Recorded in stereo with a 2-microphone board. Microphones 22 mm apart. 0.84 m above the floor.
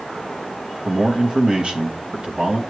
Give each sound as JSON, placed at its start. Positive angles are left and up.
{"t": 0.8, "sound": "a man speaking", "side_deg": -40, "distance_m": 1.2}